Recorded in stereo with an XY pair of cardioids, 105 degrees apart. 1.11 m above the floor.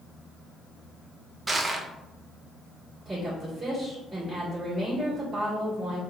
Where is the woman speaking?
20° right, 1.8 m.